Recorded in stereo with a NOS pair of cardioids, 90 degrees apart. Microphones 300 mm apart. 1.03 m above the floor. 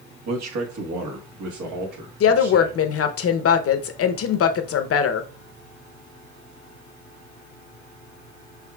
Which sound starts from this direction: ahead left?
A woman speaking, at 2.2 s.